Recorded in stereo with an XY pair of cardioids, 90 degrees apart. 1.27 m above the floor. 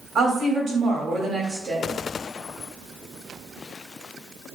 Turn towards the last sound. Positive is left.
turn(degrees=-55)